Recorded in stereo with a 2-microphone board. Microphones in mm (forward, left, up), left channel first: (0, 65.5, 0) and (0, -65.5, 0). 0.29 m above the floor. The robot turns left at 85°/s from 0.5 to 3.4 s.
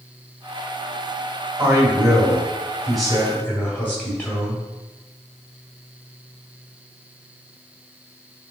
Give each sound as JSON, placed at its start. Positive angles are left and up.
{"t": 1.6, "sound": "a man speaking", "side_deg": -20, "distance_m": 1.5}